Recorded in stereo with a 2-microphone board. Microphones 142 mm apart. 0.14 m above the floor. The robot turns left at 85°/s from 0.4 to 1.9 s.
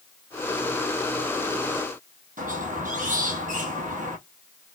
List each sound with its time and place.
2.4 s a squeak: 70° right (ahead or behind), 1.7 m